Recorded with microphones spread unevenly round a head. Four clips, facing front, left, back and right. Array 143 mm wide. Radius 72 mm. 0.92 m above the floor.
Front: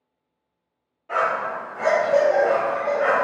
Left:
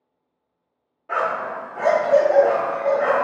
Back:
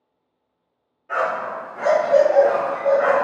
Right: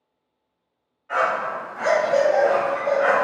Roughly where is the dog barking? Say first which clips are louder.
Right 1 dB, even; left.